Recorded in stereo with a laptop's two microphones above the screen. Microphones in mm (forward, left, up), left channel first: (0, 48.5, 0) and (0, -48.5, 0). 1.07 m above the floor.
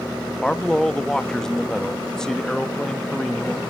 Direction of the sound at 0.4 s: 5° left (ahead or behind).